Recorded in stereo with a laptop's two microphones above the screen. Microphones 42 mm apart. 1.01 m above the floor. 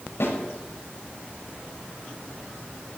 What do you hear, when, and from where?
0.2 s a snare drum: 85° left, 4.5 m